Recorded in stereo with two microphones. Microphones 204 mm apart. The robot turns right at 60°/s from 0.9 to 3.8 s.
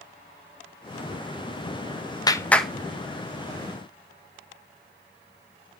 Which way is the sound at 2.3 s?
20° left (ahead or behind).